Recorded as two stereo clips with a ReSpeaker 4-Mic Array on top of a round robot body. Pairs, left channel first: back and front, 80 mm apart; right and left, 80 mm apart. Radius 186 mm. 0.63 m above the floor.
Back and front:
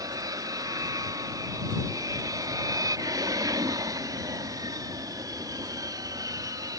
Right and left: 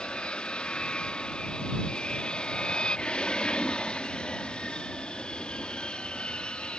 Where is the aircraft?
15° right.